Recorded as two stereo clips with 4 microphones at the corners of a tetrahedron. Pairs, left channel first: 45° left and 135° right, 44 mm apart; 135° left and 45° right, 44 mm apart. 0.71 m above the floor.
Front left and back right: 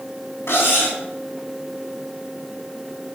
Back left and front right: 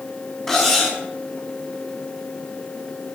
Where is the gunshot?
I don't hear a gunshot.